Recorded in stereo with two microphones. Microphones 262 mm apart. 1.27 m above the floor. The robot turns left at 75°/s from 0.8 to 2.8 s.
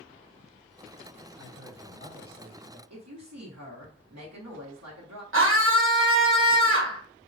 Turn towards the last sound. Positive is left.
turn(degrees=-50)  # may be behind; listen again after turning